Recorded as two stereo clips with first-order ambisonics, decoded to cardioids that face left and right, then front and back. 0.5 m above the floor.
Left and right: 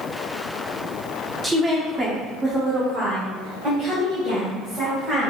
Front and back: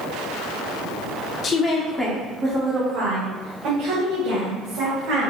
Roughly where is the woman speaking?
Ahead.